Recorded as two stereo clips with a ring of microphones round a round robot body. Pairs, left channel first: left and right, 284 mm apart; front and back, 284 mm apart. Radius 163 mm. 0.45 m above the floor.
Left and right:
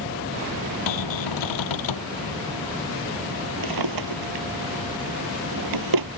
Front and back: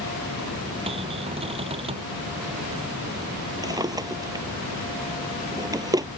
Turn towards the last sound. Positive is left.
turn(degrees=-105)